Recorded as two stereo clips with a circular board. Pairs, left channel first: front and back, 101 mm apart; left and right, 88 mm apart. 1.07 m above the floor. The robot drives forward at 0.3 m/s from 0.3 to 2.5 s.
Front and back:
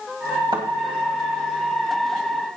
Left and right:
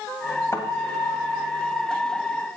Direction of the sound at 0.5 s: 145° left.